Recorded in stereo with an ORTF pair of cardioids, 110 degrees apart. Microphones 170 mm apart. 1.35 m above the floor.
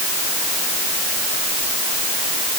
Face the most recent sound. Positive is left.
No sound to turn to.